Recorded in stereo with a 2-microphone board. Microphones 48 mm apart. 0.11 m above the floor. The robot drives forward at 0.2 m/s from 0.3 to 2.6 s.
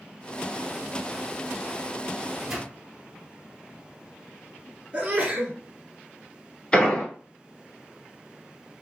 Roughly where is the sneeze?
Right.